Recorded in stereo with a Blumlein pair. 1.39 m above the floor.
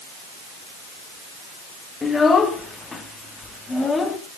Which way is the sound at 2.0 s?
15° left.